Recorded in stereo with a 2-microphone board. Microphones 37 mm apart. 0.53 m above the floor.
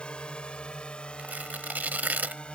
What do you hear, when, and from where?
0.0 s a drone: 30° left (ahead or behind)
1.2 s tearing paper: 55° right (ahead or behind)